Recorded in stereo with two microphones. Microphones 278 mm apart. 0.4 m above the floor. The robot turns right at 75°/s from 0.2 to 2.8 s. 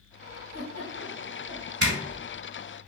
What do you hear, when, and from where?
0.5 s a giggle: 75° left (ahead or behind), 0.9 m; by 1.7 s 10° left (ahead or behind), 0.9 m
1.8 s a zipper: 55° right (ahead or behind), 1.1 m; by 1.9 s 60° right (ahead or behind), 1.1 m